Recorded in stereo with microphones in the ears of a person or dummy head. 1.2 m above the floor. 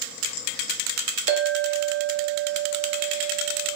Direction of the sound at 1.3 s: 40° right (ahead or behind).